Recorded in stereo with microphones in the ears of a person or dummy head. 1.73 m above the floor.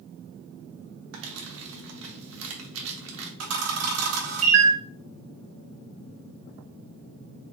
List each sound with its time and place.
1.1 s crumpling: 75° right (ahead or behind), 1.0 m
3.4 s a camera shutter: 70° right (ahead or behind), 1.2 m